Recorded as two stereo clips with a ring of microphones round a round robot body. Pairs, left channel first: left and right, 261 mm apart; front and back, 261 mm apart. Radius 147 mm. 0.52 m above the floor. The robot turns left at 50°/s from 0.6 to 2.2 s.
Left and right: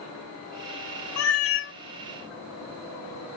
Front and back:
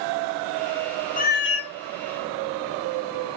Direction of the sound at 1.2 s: 65° left.